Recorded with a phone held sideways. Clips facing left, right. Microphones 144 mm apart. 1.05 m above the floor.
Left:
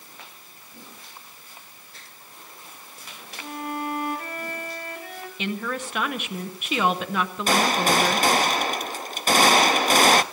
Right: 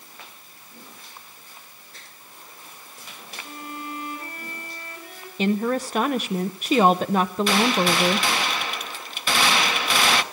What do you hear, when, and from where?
3.4 s a violin: 65° left (ahead or behind), 2.0 m
5.4 s a woman speaking: 35° right (ahead or behind), 0.7 m
7.5 s a gunshot: 45° left (ahead or behind), 0.7 m